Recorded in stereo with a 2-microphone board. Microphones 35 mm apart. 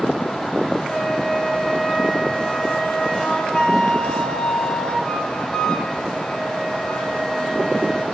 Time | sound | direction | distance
0.9 | a flute | 20° left (ahead or behind) | 4 m